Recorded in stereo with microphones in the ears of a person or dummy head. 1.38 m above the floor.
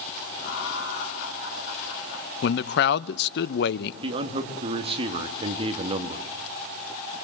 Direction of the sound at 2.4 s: 60° left (ahead or behind).